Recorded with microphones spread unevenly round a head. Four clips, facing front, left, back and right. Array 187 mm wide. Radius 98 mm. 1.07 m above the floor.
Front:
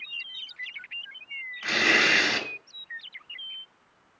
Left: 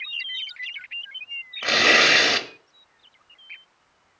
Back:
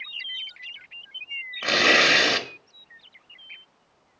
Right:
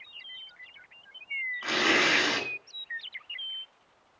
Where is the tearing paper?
150° left, 1.8 m.